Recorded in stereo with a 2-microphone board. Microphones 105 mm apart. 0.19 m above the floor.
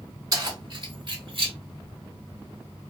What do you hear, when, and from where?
0.3 s keys jangling: 40° right (ahead or behind), 1.2 m; by 1.5 s 55° right (ahead or behind), 1.5 m